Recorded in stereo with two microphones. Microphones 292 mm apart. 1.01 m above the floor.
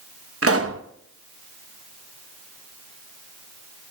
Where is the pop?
55° right (ahead or behind), 0.9 m.